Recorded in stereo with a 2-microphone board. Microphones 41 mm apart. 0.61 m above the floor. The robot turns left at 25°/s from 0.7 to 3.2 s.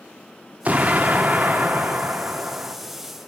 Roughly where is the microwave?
No microwave in this recording.